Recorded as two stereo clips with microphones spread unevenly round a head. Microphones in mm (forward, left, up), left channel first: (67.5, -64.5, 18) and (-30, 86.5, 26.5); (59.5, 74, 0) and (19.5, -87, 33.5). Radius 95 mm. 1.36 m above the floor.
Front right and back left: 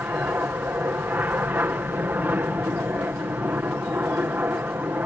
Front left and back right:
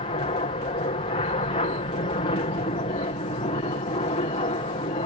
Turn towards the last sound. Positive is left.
turn(degrees=45)